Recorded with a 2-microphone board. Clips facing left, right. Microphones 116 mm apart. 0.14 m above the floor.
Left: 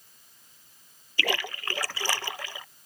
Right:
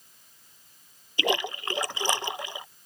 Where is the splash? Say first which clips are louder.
Right 4 dB; 20° right (ahead or behind).